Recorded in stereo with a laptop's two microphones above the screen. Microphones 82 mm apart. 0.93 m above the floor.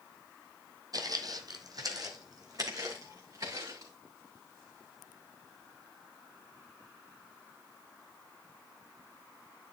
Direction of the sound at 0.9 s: 50° right (ahead or behind).